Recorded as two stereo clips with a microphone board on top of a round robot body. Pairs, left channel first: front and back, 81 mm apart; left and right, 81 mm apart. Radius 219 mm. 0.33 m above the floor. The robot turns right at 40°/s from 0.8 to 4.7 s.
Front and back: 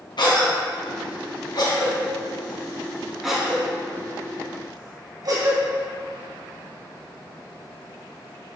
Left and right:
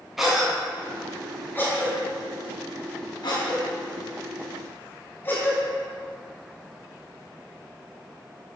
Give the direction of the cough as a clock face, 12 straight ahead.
12 o'clock.